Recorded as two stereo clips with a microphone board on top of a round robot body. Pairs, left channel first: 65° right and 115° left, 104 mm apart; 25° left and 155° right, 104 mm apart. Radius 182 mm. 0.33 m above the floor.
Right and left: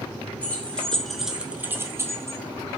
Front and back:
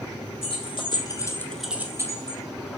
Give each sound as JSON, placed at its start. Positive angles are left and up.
{"t": 0.4, "sound": "keys jangling", "azimuth_deg": 10, "distance_m": 1.2}